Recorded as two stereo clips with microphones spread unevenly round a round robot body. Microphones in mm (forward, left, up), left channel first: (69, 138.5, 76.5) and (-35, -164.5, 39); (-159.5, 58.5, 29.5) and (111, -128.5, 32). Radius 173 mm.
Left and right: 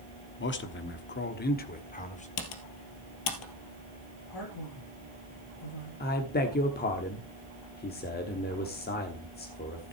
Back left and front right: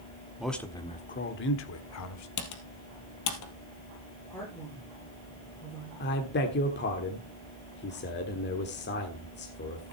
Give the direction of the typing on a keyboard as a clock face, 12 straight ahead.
9 o'clock.